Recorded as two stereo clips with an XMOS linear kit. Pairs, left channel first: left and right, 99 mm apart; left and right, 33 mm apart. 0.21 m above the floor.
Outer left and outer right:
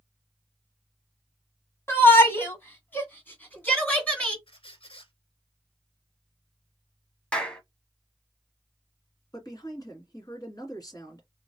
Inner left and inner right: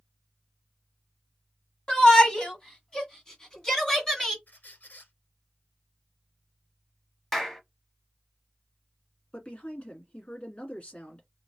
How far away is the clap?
About 0.9 m.